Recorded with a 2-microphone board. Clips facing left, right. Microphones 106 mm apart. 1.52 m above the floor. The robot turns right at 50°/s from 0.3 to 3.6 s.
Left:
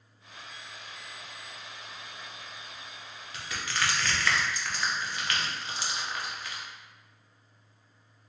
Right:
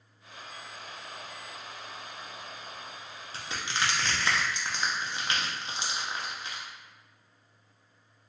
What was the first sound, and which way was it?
Crushing, 30° right (ahead or behind).